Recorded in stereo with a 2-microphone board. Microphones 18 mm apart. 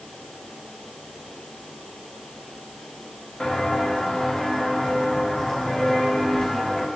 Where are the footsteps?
50° left (ahead or behind), 3.5 m; by 6.9 s 30° left (ahead or behind), 6 m.